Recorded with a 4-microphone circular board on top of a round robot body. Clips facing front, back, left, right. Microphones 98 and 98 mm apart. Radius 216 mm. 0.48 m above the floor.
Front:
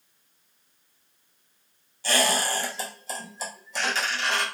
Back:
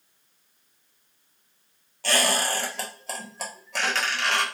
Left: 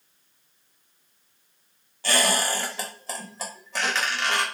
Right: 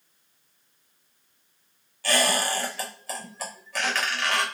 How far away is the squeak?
About 1.4 m.